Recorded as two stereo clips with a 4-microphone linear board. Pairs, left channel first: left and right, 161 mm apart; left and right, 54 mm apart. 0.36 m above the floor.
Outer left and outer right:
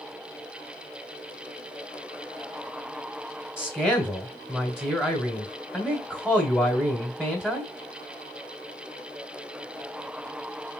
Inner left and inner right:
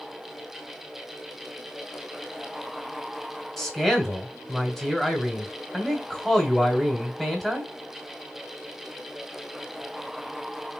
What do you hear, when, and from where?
3.6 s a man speaking: 5° right (ahead or behind), 1.4 m